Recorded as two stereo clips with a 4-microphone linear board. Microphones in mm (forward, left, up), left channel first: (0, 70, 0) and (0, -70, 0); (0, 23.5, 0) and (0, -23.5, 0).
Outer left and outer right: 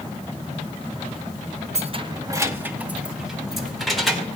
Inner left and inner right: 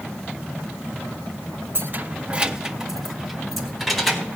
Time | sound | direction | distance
1.8 | keys jangling | 50° right (ahead or behind) | 0.6 m